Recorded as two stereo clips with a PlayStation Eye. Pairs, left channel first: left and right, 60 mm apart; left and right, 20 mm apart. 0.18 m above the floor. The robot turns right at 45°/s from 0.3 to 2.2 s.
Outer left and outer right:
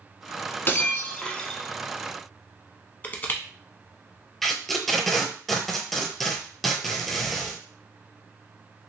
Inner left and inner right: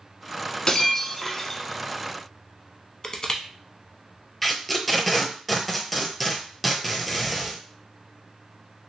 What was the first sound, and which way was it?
Breaking glass, 130° left.